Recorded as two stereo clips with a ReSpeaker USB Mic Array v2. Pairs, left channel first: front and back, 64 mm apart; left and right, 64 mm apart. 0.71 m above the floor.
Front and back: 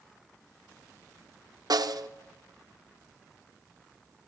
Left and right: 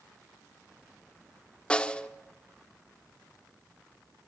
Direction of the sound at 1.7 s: 165° left.